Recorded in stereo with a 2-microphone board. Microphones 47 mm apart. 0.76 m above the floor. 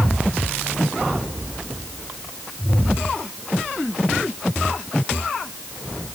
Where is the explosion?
I don't hear an explosion.